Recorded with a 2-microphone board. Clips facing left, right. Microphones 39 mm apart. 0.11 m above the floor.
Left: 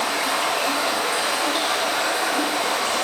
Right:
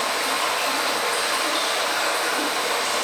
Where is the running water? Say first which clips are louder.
Left 1 dB; 5° left (ahead or behind), 1.2 m.